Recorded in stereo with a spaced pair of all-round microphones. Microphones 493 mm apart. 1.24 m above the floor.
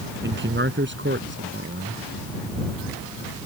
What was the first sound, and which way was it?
A man speaking, 25° right (ahead or behind).